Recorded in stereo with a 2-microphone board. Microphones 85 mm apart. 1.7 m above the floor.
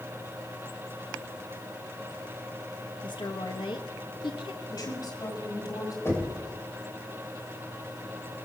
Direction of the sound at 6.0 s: 30° left (ahead or behind).